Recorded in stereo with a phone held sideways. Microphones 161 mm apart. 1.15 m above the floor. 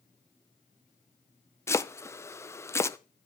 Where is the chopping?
20° left (ahead or behind), 0.5 m.